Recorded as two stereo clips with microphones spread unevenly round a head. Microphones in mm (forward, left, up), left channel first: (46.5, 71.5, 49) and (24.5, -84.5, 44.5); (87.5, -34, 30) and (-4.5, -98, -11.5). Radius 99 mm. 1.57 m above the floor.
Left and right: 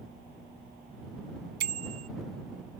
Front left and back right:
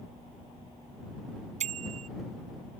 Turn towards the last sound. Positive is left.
turn(degrees=-130)